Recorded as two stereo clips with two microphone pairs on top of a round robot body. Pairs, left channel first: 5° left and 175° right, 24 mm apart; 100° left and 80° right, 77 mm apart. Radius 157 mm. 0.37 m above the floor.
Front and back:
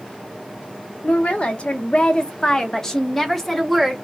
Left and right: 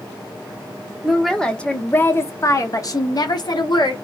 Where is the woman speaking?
5° left, 1.2 m; by 3.9 s 100° left, 1.5 m.